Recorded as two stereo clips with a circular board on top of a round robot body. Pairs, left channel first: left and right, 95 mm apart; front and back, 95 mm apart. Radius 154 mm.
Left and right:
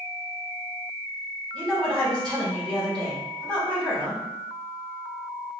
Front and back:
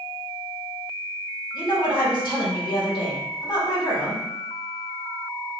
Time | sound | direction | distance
1.5 | a woman speaking | 10° left | 1.7 m